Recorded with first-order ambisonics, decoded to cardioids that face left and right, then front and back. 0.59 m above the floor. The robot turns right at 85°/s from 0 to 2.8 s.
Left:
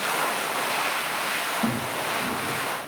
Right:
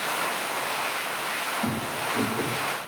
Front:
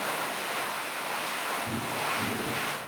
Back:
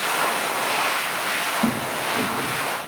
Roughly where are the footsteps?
Behind.